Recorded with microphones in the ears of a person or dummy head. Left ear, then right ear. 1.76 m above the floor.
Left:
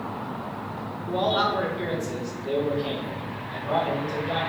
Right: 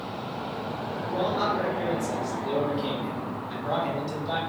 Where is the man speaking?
50° left (ahead or behind), 0.8 m; by 4.4 s 65° right (ahead or behind), 1.6 m.